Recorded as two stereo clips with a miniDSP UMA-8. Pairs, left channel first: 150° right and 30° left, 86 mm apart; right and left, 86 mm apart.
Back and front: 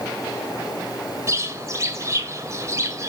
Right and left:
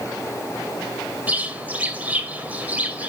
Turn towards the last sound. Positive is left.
turn(degrees=30)